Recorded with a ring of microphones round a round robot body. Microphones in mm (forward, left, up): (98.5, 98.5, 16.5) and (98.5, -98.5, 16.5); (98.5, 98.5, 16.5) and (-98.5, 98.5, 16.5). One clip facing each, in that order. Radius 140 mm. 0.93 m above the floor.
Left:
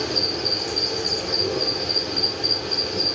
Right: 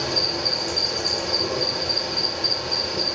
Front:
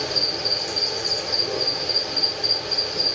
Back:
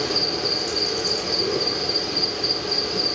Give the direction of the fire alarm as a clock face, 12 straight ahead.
I don't hear a fire alarm.